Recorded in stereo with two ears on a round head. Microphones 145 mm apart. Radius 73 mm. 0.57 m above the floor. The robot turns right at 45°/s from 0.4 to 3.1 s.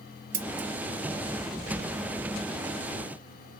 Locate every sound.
0.3 s scissors: 55° right (ahead or behind), 0.6 m; by 0.7 s 60° right (ahead or behind), 0.6 m